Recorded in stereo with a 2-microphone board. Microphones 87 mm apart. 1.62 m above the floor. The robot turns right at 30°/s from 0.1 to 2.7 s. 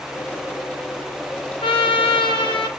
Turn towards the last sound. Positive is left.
turn(degrees=110)